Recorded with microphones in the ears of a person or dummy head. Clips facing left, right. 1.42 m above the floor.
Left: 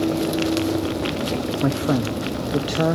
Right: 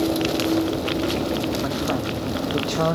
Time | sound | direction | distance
1.6 | a man speaking | 55° left (ahead or behind) | 0.6 m